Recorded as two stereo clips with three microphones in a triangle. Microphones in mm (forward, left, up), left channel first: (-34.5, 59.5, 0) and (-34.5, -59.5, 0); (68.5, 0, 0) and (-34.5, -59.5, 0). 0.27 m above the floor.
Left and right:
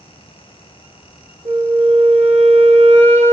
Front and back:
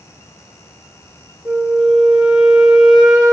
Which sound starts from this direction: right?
A flute, at 1.4 s.